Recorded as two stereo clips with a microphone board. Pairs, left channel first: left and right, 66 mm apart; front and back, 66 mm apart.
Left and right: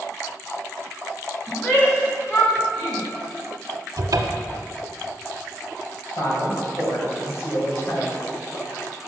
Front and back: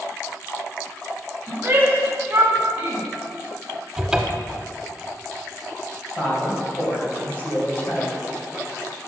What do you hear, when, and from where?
1.5 s a shout: 130° left, 1.8 m; by 3.0 s 115° left, 2.5 m
4.0 s a cupboard door: 100° right, 0.7 m
6.2 s a woman speaking: 55° left, 2 m